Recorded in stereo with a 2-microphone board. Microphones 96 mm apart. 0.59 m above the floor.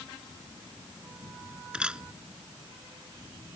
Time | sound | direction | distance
1.7 | a camera shutter | 10° right (ahead or behind) | ?